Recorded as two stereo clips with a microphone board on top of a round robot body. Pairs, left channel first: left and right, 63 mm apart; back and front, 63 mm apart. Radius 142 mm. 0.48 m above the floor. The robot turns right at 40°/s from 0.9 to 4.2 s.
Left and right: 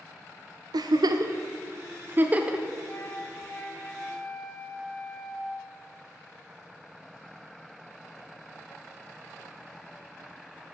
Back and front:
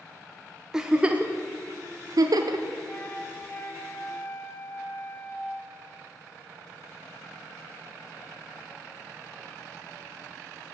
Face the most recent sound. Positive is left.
turn(degrees=175)